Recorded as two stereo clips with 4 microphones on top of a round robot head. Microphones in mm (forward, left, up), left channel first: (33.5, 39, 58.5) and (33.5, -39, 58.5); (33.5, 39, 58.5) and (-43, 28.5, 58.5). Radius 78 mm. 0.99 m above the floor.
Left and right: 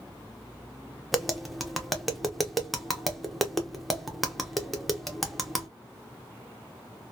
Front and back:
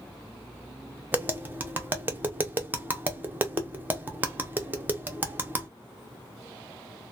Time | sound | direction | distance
1.1 | tapping | straight behind | 0.8 m